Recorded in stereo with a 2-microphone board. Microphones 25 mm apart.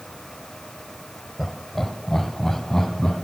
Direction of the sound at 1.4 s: 5° left (ahead or behind).